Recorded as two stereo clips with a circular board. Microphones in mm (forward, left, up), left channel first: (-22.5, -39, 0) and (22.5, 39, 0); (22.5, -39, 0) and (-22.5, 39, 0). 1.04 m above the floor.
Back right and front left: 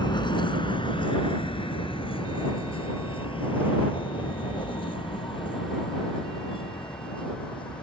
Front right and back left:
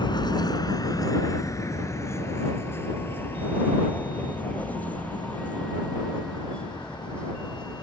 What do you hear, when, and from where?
0.0 s a vehicle: 90° right; by 7.8 s 140° right